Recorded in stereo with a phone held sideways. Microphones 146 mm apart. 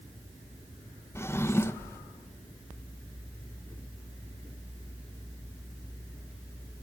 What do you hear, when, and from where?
1.1 s a drawer: 15° left (ahead or behind), 0.6 m